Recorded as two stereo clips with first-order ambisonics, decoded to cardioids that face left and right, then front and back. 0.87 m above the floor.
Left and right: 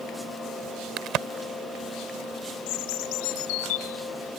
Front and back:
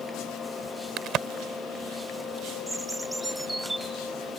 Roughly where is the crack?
Behind right.